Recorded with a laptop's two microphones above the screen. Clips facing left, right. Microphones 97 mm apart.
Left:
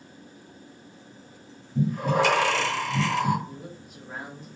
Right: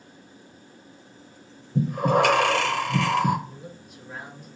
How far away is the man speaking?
About 2.0 m.